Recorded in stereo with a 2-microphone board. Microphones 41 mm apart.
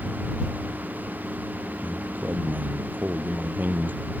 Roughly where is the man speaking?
Right.